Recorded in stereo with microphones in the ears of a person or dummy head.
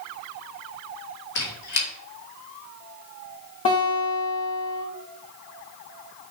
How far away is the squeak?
About 2 m.